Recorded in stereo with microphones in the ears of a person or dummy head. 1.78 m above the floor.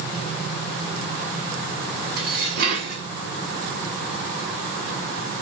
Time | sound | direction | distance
2.2 | dishes clattering | 55° right (ahead or behind) | 1.8 m